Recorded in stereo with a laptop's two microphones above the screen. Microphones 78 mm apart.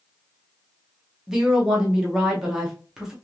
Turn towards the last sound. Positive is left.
turn(degrees=-5)  # may be behind; listen again after turning